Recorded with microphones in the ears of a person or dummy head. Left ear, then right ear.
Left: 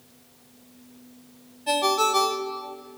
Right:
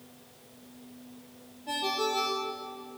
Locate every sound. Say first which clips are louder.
1.7 s a ringtone: left 8 dB; 40° left (ahead or behind), 0.6 m